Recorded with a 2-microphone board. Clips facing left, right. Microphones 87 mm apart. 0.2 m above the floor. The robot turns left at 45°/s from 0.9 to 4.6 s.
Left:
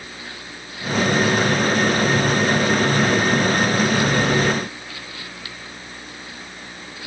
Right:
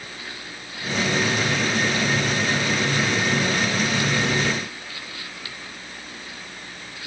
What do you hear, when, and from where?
Only background noise.